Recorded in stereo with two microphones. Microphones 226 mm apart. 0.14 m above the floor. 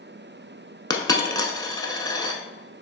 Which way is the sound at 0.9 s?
15° left (ahead or behind).